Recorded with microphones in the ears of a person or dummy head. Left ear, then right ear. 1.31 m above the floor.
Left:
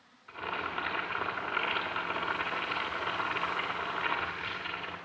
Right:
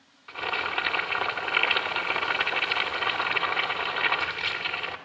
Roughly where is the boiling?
Right.